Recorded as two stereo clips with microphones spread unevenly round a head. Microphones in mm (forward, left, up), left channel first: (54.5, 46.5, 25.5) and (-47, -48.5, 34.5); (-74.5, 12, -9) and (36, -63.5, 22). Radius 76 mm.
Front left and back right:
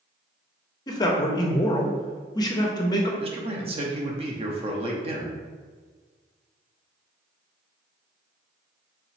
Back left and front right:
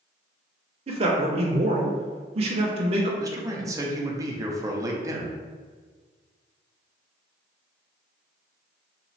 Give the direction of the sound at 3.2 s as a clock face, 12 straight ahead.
3 o'clock.